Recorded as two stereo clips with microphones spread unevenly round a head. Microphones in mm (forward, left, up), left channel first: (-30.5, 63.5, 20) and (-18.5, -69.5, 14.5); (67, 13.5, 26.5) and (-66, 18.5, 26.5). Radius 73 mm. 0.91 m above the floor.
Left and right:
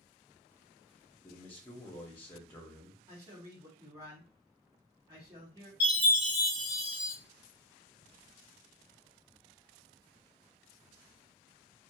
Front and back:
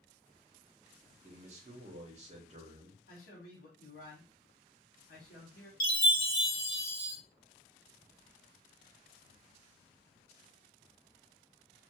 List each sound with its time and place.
1.2 s a man speaking: 170° left, 0.9 m
3.1 s a man speaking: 15° right, 1.3 m
5.8 s a chime: 5° right, 1.6 m